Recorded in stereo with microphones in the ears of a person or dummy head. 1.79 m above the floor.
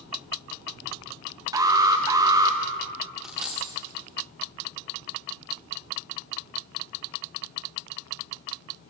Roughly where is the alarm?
Right.